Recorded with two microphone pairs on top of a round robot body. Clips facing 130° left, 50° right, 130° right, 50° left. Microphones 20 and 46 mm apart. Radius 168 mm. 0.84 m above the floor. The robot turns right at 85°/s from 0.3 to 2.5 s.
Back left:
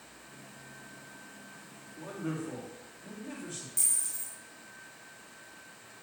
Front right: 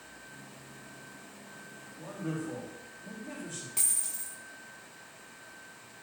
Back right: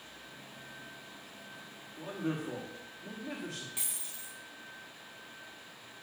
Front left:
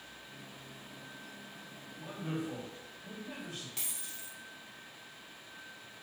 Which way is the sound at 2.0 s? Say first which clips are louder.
Even, back right 3 dB; 165° left.